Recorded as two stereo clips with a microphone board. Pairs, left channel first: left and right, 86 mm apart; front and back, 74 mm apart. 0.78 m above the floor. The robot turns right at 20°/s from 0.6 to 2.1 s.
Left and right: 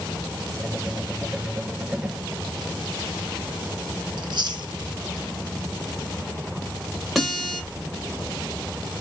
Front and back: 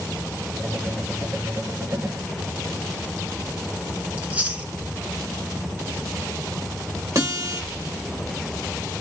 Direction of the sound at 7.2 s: Straight behind.